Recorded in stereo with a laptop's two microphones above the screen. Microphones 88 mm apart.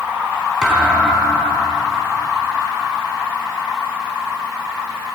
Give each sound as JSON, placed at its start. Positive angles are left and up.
{"t": 0.6, "sound": "a thud", "side_deg": -10, "distance_m": 4.5}